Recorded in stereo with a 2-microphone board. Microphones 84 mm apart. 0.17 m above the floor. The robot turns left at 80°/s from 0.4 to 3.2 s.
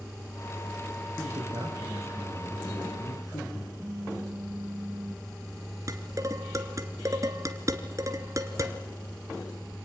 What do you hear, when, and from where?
1.2 s a man speaking: 70° right, 5.5 m; by 3.7 s 125° left, 5.5 m
3.8 s a phone buzzing: 50° right (ahead or behind), 1.7 m
5.9 s dishes clattering: 45° right (ahead or behind), 1.6 m